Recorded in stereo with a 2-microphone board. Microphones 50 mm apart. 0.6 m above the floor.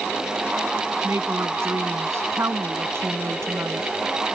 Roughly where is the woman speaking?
Right.